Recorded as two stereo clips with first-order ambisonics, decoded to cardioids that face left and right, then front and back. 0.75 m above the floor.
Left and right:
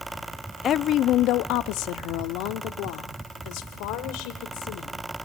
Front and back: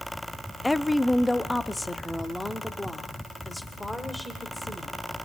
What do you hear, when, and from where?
0.6 s a woman speaking: 75° left, 0.5 m; by 4.9 s 85° left, 3 m